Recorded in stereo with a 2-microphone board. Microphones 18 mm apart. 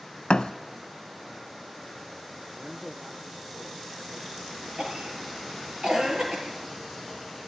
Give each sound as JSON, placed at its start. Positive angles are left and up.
{"t": 0.3, "sound": "a thud", "side_deg": 75, "distance_m": 1.0}
{"t": 2.5, "sound": "a man speaking", "side_deg": -75, "distance_m": 4.0}
{"t": 4.8, "sound": "a cough", "side_deg": -50, "distance_m": 5.5}